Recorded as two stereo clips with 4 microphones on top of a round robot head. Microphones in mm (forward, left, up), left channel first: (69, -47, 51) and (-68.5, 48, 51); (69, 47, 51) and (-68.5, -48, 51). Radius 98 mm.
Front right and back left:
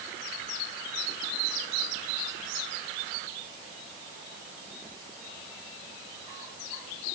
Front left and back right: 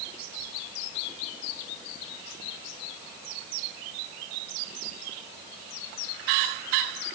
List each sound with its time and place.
Only background noise.